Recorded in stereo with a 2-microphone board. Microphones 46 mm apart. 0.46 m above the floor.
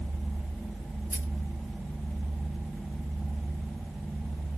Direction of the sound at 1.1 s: 60° right (ahead or behind).